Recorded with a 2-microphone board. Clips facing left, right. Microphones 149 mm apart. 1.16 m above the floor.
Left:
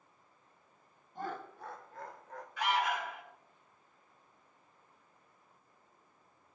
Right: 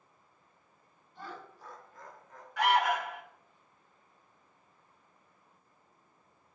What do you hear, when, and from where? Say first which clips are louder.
1.1 s laughter: left 5 dB; 45° left (ahead or behind), 0.8 m; by 2.5 s 70° left (ahead or behind), 1.3 m
2.6 s an alarm: right 5 dB; 80° right, 1.8 m